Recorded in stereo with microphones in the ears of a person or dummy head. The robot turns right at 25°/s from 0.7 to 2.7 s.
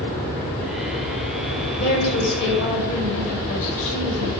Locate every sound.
1.8 s a woman speaking: 50° left (ahead or behind), 4.5 m; by 4.3 s 70° left (ahead or behind), 4.5 m